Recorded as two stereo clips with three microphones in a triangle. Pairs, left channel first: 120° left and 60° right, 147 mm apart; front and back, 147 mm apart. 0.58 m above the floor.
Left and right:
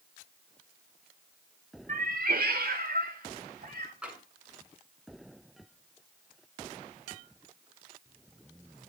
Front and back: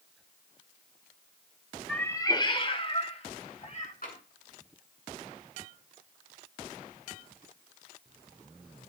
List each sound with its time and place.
1.9 s a cat meowing: 85° right, 0.7 m; by 3.9 s 45° right, 2.5 m
4.0 s tapping: 25° left, 8.5 m